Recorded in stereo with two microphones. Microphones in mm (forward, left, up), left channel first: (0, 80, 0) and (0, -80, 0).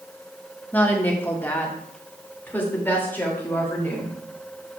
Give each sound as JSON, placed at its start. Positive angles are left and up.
{"t": 0.7, "sound": "a woman speaking", "side_deg": 10, "distance_m": 1.3}